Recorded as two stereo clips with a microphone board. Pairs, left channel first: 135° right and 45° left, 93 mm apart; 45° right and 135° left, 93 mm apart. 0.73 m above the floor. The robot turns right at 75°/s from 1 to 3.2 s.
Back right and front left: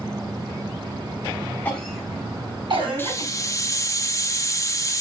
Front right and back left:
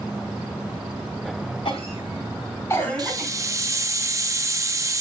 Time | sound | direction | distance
1.6 | a cough | 65° right | 5 m
3.0 | a hiss | 165° left | 0.7 m